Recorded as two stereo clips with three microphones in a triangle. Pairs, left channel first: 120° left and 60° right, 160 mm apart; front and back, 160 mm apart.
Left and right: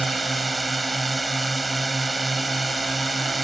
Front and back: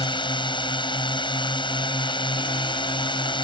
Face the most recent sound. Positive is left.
turn(degrees=30)